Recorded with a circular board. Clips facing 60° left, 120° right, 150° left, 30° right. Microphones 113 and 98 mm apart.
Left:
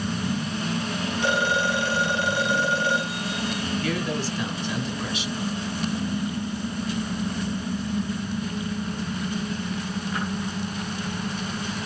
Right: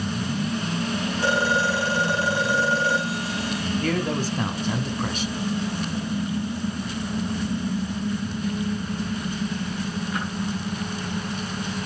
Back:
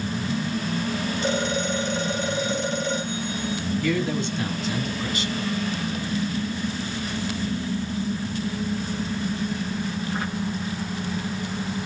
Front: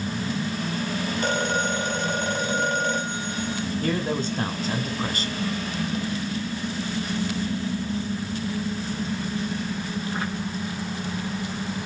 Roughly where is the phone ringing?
Ahead right.